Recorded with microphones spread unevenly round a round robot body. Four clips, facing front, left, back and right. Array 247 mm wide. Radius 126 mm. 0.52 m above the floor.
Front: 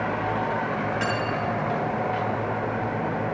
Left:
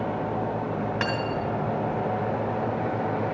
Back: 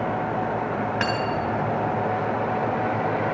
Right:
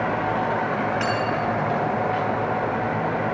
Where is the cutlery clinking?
165° left, 2.5 m.